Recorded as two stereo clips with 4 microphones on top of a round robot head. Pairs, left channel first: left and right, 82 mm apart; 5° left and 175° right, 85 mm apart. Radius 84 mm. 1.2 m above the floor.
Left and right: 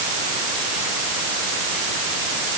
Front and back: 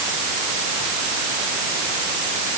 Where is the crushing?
No crushing in this recording.